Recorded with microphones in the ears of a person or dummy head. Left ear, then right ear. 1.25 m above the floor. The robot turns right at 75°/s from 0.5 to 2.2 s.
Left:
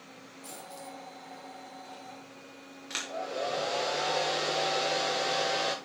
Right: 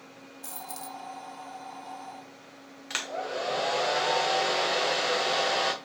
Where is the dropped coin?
135° right, 1.3 m; by 1.0 s 100° right, 1.3 m.